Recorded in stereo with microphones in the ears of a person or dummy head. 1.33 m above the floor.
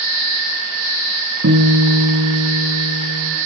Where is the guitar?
65° right (ahead or behind), 2.5 m.